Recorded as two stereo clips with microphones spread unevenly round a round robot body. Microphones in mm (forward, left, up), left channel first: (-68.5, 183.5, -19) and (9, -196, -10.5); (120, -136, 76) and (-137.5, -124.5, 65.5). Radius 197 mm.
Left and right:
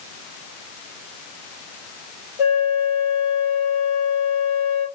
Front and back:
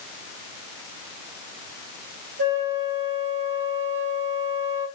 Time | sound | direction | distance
2.4 | a flute | 110° left | 2.5 m